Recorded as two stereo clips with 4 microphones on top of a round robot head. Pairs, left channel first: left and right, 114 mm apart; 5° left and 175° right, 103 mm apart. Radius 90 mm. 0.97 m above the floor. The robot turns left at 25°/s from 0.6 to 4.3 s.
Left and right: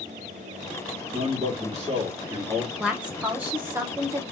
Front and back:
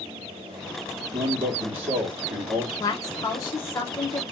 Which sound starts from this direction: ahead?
A woman speaking, at 2.8 s.